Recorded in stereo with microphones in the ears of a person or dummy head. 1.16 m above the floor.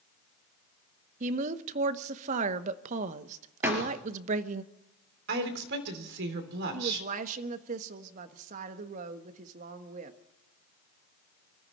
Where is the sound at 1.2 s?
40° right (ahead or behind), 1.0 m.